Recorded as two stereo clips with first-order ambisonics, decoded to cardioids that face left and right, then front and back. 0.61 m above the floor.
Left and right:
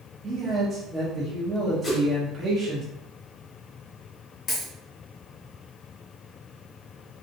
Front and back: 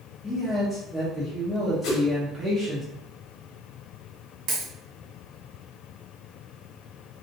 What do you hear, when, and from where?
0.2 s a man speaking: 95° right, 0.7 m
1.8 s a whoosh: 15° left, 0.8 m
4.5 s a dropped coin: 155° left, 1.5 m